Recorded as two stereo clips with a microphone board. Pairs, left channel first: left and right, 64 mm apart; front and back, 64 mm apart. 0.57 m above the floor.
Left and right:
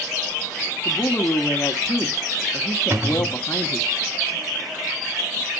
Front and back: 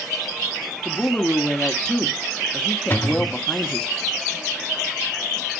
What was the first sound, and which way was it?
A woman speaking, 75° left.